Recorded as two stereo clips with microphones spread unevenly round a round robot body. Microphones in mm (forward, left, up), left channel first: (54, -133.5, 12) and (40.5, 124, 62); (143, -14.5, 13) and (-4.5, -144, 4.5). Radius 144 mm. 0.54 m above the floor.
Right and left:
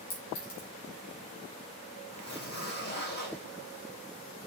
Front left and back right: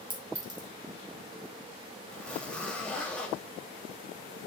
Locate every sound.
0.1 s a clink: 85° right, 3.5 m
2.1 s a zipper: 45° right, 3 m